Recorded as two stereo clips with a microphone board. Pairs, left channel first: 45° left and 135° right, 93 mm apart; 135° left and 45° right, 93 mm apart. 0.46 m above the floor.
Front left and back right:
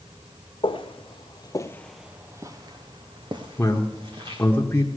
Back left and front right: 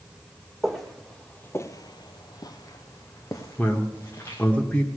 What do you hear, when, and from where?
0.6 s footsteps: 45° left, 1.4 m; by 4.4 s 165° right, 3 m
3.6 s a man speaking: 80° left, 1.1 m